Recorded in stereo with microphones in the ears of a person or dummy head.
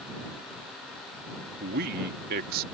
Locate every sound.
1.6 s a man speaking: 45° right (ahead or behind)